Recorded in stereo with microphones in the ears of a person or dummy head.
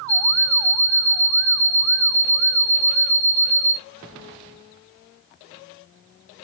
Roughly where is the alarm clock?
Left.